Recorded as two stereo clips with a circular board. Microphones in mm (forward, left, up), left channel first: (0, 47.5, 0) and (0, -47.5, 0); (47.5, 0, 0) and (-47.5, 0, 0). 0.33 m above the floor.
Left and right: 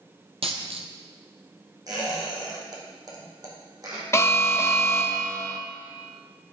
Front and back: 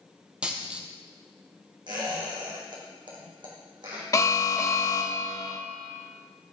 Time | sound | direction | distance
0.4 | a dropped coin | 100° right | 1.2 m
1.9 | a squeak | 140° right | 3 m
4.1 | an alarm | 40° left | 0.8 m